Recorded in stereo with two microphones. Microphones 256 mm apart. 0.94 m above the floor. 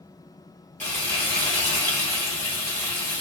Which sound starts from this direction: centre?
Frying, at 0.8 s.